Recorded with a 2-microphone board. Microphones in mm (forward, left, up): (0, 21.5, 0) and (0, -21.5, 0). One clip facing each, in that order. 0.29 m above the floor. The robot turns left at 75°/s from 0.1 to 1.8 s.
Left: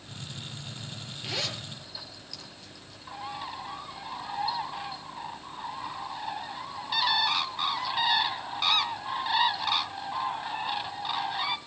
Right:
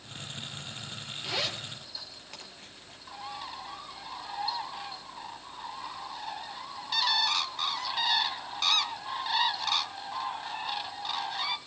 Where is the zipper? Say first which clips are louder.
Right 1 dB; 5° left (ahead or behind), 4.5 m; by 3.0 s 40° right (ahead or behind), 4.5 m.